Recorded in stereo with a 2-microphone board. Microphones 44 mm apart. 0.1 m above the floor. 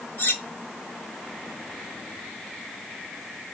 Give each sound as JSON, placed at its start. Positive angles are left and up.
{"t": 0.2, "sound": "cutlery clinking", "side_deg": 50, "distance_m": 1.4}